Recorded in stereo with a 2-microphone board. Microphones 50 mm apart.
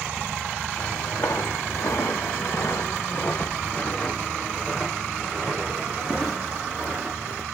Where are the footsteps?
85° left, 1.6 m; by 7.4 s 20° right (ahead or behind), 2.5 m.